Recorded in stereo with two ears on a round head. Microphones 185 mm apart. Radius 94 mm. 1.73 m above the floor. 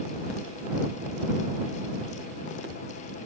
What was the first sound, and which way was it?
Only background noise.